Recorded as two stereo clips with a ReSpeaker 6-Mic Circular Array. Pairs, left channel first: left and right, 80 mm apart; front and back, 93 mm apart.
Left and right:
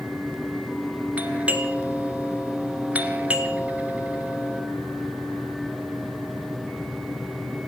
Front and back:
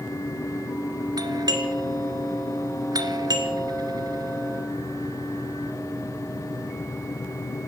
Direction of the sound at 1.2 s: 155° right.